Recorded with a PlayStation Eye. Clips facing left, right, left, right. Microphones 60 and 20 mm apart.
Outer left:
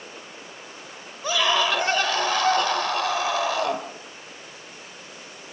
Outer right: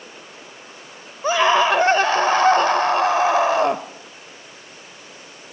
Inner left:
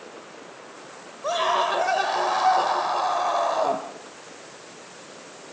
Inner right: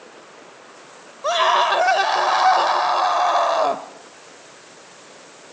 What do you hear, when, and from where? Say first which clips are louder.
1.2 s a scream: outer right 6 dB, inner right 6 dB; 35° right (ahead or behind), 1.1 m